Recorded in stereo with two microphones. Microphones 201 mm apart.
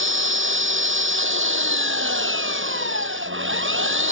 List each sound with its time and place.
0.0 s an engine running: 80° right